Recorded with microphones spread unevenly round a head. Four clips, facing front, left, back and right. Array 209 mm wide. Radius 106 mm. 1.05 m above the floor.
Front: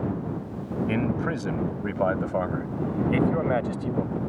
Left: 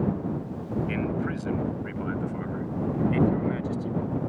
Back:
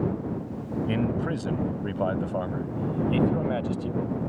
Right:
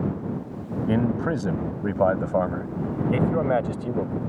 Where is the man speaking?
85° right; by 4.2 s 75° right.